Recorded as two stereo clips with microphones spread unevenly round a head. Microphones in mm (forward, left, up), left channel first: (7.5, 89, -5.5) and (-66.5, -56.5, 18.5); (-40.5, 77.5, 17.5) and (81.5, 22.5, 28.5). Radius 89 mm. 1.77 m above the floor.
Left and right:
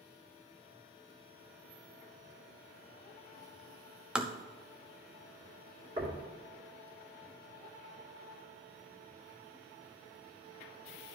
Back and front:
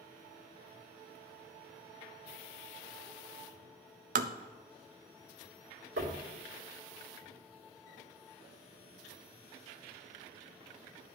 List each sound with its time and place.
4.2 s tapping: 35° right, 0.5 m
6.0 s knocking: 50° right, 2.5 m